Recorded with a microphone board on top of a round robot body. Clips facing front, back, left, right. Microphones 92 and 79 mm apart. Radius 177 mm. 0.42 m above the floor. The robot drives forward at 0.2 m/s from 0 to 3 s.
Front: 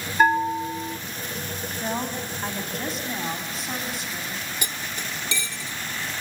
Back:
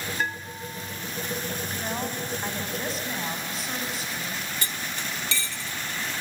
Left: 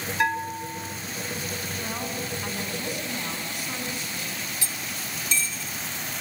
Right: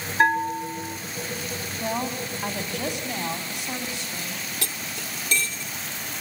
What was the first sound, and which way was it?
A bell, 35° right.